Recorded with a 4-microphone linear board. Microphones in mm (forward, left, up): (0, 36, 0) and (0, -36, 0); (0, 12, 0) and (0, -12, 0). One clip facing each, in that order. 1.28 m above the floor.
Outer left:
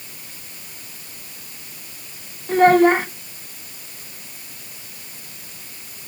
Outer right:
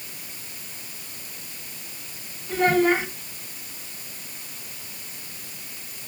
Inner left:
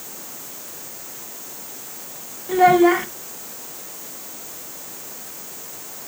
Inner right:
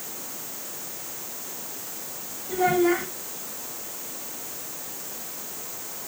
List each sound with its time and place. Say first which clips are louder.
2.5 s a child speaking: outer left 7 dB, inner left 8 dB; 50° left (ahead or behind), 1.4 m